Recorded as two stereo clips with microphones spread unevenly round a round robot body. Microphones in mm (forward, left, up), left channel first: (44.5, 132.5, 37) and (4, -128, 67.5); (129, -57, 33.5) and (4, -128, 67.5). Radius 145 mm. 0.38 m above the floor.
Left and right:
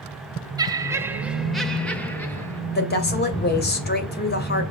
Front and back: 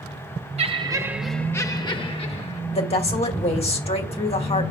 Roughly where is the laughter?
Behind.